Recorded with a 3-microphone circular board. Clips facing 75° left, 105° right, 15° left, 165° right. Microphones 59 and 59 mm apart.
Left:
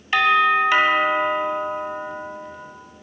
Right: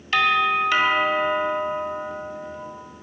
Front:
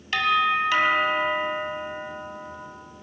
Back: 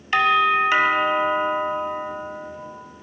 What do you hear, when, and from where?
0.1 s a doorbell: 135° left, 2 m